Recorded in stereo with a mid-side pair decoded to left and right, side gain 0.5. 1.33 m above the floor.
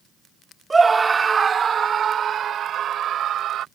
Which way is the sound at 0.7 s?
20° right.